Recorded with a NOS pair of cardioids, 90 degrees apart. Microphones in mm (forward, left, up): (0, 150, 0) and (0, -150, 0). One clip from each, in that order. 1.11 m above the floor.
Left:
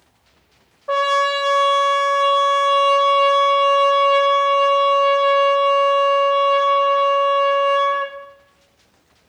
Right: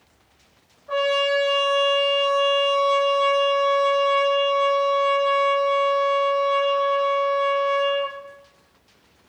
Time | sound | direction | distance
0.9 | a trumpet | 60° left | 0.5 m